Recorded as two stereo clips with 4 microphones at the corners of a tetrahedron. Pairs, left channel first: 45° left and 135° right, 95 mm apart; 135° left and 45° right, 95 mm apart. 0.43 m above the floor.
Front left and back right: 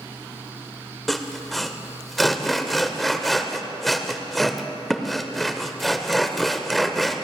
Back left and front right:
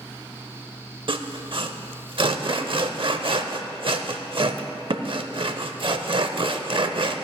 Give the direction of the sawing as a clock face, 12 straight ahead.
1 o'clock.